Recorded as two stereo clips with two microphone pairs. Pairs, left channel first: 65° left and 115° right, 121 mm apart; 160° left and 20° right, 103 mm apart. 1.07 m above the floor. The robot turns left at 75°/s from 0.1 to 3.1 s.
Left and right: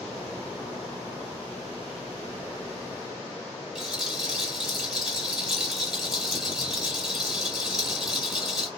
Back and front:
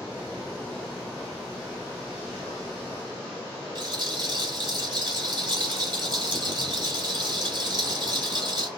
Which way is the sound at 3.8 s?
30° right.